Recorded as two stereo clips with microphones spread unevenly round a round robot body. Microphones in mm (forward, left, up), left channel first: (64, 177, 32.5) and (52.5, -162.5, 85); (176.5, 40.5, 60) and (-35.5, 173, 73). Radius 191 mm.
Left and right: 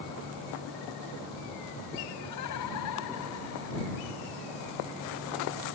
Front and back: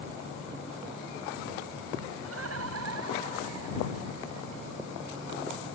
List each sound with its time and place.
2.2 s laughter: 125° left; by 4.8 s 150° left